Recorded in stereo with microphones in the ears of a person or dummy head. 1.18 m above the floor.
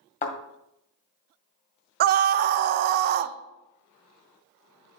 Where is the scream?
50° right (ahead or behind), 0.6 m.